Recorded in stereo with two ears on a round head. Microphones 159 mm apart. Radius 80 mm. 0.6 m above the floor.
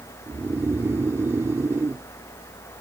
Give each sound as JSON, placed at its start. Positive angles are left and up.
{"t": 0.3, "sound": "snoring", "side_deg": -15}